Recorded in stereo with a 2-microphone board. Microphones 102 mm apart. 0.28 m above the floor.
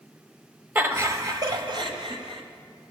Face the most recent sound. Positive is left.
turn(degrees=-60)  # may be behind; listen again after turning